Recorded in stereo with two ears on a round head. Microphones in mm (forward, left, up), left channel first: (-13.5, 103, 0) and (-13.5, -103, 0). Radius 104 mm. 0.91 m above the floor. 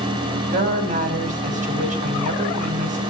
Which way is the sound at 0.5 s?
35° right (ahead or behind).